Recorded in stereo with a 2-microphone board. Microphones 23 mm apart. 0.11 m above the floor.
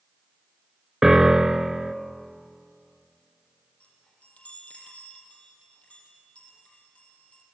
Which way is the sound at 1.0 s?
20° right (ahead or behind).